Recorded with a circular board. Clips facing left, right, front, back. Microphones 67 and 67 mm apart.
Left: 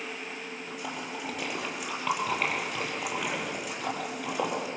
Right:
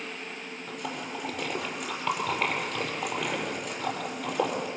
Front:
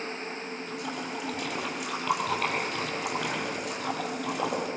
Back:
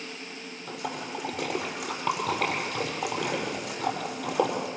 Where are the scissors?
I don't hear scissors.